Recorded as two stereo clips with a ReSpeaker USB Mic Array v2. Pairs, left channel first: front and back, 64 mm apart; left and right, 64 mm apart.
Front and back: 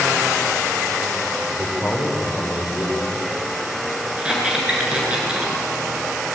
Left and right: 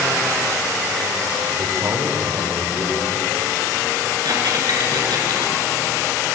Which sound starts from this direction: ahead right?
A man speaking, at 1.5 s.